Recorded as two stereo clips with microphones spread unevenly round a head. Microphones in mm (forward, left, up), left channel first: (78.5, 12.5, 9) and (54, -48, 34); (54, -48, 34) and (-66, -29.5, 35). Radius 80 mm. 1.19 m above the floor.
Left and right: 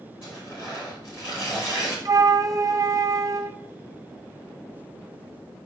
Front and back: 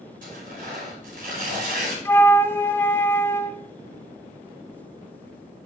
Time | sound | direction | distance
0.2 | tearing paper | 160° left | 5 m
2.0 | a flute | 80° right | 0.9 m